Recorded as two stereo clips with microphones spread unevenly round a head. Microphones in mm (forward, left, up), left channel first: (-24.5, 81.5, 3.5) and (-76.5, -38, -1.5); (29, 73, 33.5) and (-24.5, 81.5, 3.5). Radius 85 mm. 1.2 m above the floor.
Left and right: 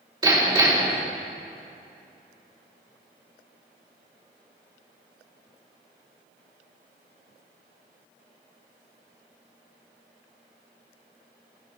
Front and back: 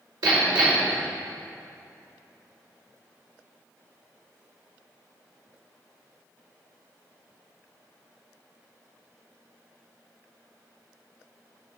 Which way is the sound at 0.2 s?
165° right.